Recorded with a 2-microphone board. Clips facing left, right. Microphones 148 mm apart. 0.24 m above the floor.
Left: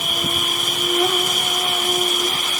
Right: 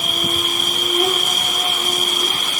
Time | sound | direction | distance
0.0 | an insect | 20° right (ahead or behind) | 1.8 m